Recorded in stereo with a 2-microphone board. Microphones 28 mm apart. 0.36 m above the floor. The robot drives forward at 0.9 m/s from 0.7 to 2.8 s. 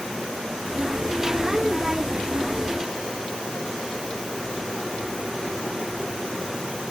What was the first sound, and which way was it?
Only background noise.